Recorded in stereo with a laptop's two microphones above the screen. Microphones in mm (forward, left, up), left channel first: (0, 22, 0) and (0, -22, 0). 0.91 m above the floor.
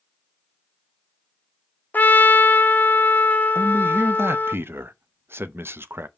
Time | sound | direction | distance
1.9 | a trumpet | 45° left (ahead or behind) | 0.7 m
3.5 | a man speaking | 65° right (ahead or behind) | 0.6 m